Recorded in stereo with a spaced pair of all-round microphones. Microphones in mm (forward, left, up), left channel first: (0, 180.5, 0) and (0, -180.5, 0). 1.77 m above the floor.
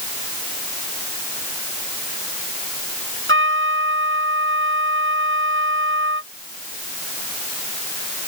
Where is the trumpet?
35° right (ahead or behind).